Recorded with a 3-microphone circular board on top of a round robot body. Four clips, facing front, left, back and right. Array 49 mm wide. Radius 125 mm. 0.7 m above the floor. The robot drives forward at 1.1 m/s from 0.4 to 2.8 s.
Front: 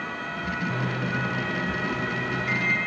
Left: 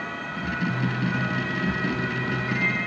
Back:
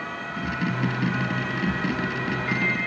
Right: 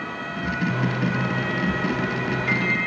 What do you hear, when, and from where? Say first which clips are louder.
0.7 s a microwave: right 2 dB, back 2 dB; 50° right, 2.5 m; by 2.8 s 110° right, 2 m